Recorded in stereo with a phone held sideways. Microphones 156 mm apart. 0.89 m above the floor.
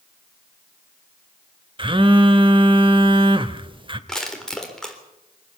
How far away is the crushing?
About 3.5 m.